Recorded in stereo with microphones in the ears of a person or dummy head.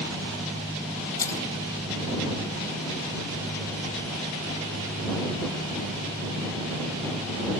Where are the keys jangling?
20° left (ahead or behind).